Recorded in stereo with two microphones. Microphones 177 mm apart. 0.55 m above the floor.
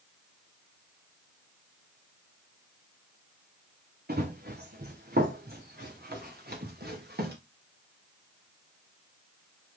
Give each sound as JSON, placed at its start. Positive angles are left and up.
{"t": 4.1, "sound": "running footsteps", "side_deg": -60, "distance_m": 2.5}